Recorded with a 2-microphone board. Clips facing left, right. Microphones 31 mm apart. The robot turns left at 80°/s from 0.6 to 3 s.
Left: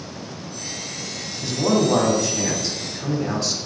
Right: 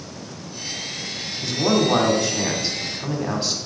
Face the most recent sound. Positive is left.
turn(degrees=-25)  # may be behind; listen again after turning